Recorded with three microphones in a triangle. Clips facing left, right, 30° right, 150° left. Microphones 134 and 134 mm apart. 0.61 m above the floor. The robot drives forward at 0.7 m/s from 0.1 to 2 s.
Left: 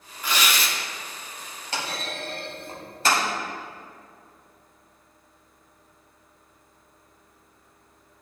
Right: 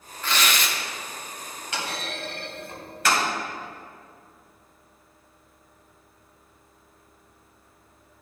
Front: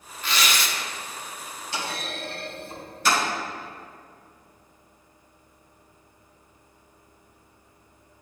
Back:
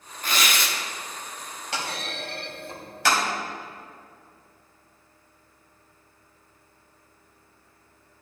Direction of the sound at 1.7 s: 145° left.